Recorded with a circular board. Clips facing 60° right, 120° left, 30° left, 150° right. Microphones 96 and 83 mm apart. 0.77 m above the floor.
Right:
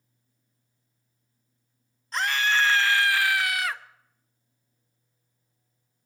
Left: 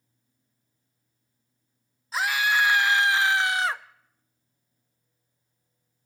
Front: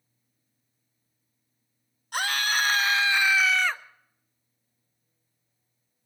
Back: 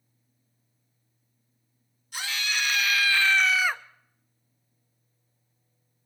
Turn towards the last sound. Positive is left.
turn(degrees=150)